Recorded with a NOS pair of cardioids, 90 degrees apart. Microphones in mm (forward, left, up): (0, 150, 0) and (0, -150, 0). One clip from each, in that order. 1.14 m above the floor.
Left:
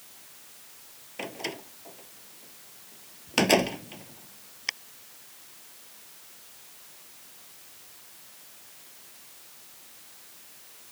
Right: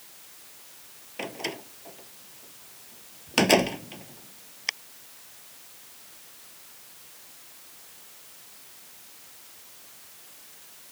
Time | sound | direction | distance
1.2 | a door slam | 5° right | ?